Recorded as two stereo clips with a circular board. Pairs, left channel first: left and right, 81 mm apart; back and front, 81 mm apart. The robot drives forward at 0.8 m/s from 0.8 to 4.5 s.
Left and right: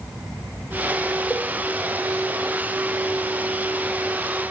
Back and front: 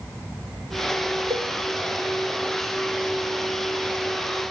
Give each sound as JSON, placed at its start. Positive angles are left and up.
{"t": 1.3, "sound": "a cowbell", "azimuth_deg": -20, "distance_m": 1.2}